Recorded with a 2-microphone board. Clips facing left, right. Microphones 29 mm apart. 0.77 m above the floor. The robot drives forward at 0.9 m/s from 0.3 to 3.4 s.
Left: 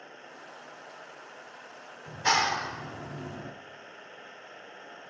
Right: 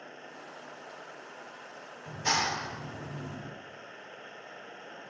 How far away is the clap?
About 1.6 m.